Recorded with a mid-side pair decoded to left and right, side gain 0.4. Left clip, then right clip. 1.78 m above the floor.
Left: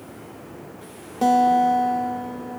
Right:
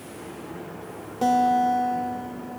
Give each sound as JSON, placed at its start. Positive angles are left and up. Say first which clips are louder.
{"t": 1.2, "sound": "a guitar", "louder": "left 3 dB", "azimuth_deg": 25, "distance_m": 0.9}